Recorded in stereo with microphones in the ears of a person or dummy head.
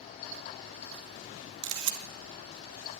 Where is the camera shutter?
70° right (ahead or behind), 2.5 m.